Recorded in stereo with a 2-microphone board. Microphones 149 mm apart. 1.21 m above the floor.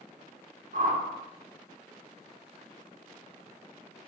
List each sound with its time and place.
0.7 s a whoosh: 70° right (ahead or behind), 3 m